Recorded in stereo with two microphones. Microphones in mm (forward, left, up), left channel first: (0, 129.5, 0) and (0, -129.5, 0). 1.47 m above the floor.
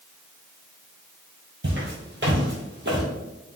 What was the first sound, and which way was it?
Footsteps, 40° right (ahead or behind).